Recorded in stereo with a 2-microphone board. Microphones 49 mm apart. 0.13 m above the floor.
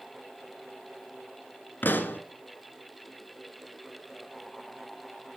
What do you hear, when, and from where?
1.8 s a pop: 45° left (ahead or behind), 0.8 m